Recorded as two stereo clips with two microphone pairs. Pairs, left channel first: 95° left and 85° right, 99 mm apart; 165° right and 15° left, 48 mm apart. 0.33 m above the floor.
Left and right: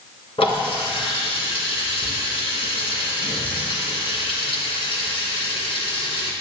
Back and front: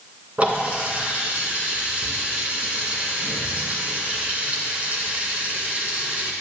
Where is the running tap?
75° left, 2 m.